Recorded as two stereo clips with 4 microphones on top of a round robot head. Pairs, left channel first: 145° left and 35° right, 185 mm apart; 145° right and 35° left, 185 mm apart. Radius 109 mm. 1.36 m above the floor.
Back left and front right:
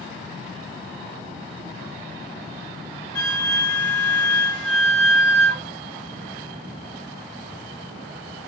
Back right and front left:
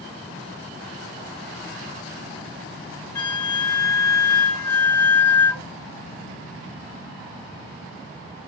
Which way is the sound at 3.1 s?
135° left.